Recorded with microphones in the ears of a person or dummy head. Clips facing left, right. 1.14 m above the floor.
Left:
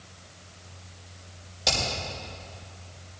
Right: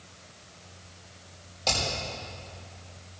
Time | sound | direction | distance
1.6 | hammering | 15° left (ahead or behind) | 5 m